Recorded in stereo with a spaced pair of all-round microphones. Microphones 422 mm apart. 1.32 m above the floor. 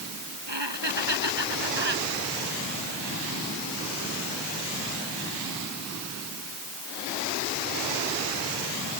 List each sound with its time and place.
0.5 s laughter: 80° right